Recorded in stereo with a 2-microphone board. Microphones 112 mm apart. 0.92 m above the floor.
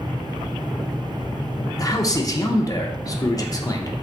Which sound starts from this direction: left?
A man speaking, at 1.8 s.